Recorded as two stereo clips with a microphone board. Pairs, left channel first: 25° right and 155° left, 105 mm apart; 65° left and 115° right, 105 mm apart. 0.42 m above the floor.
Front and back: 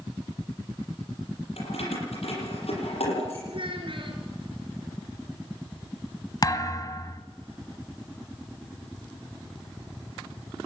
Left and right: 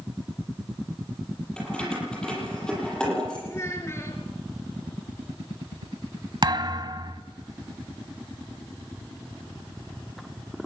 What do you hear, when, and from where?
1.6 s keys jangling: 15° right, 8 m
3.5 s a child speaking: 130° left, 3.5 m
6.4 s a thud: 70° right, 1.0 m